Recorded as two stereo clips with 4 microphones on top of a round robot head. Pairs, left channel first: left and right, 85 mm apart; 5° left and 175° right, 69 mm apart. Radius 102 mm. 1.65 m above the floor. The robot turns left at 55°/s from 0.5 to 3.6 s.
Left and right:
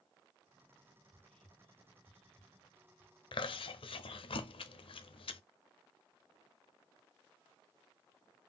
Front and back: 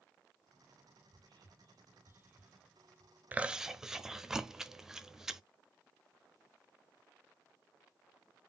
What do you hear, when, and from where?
1.1 s whispering: 170° right, 2 m; by 3.1 s 75° left, 2 m
3.3 s chewing: 115° left, 0.6 m; by 5.4 s 100° left, 0.6 m